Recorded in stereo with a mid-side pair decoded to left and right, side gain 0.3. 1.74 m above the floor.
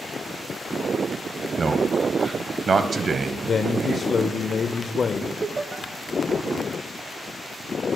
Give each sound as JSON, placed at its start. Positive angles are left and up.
{"t": 1.6, "sound": "a man speaking", "azimuth_deg": -55, "distance_m": 1.0}
{"t": 3.4, "sound": "a man speaking", "azimuth_deg": 60, "distance_m": 0.6}
{"t": 5.4, "sound": "laughter", "azimuth_deg": -45, "distance_m": 0.7}